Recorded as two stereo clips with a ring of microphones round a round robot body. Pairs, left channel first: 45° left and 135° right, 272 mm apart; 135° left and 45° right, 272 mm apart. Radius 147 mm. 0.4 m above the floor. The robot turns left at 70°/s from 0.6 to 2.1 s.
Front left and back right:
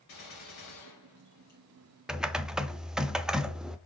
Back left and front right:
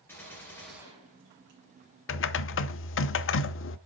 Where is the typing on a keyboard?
140° left, 0.6 m.